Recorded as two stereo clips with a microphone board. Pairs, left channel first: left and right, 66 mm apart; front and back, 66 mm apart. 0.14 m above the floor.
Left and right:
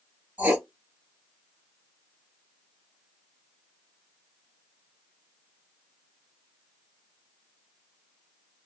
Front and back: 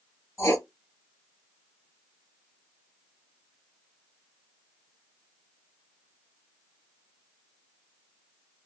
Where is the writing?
30° right, 1.7 m.